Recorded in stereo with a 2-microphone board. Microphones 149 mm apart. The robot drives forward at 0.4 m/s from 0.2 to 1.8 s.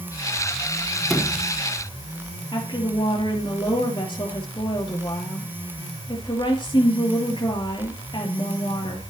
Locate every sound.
1.1 s a sliding door: centre (ahead or behind), 1.7 m
2.5 s a woman speaking: 35° left (ahead or behind), 3 m